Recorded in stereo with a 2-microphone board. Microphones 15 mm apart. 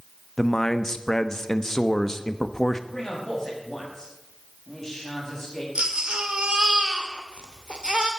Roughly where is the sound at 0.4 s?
Left.